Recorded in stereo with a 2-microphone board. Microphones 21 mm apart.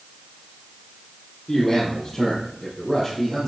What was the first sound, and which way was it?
A man speaking, 25° left (ahead or behind).